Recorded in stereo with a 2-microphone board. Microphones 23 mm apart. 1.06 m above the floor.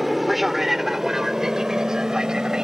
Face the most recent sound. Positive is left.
turn(degrees=-30)  # may be behind; listen again after turning